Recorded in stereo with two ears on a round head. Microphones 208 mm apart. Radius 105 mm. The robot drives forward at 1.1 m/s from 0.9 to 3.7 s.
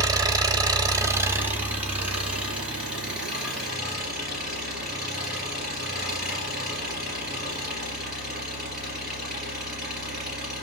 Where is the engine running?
15° right (ahead or behind), 0.7 m; by 10.6 s 5° right (ahead or behind), 4 m.